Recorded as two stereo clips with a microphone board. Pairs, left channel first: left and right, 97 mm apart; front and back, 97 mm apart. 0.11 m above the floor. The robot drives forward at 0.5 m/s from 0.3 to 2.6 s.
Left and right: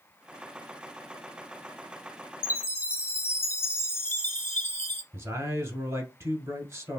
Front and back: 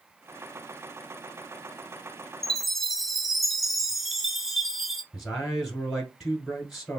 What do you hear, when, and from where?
2.4 s a chime: 85° left, 0.7 m; by 5.0 s 100° left, 0.7 m
5.1 s a man speaking: 95° right, 1.2 m